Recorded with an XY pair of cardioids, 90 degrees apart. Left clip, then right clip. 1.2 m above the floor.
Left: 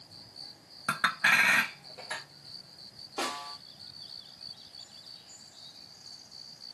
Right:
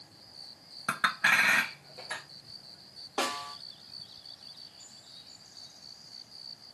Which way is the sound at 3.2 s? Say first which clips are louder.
Right 2 dB; 45° right.